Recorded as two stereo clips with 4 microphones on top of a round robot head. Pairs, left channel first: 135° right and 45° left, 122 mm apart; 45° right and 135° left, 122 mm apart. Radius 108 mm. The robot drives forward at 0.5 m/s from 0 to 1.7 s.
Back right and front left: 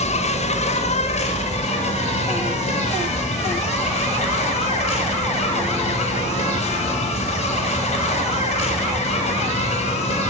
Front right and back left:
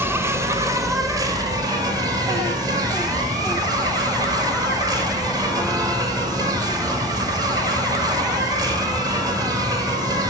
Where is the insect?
155° right, 1.0 m; by 10.3 s 165° right, 1.8 m.